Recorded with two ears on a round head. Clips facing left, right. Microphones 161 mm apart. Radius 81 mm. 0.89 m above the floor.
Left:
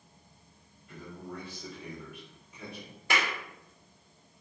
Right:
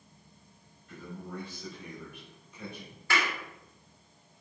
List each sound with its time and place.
0.9 s a man speaking: 5° left (ahead or behind), 3.5 m
3.1 s a clap: 20° left (ahead or behind), 2 m